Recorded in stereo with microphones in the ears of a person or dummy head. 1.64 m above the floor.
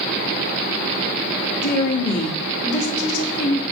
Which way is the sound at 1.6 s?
45° left (ahead or behind).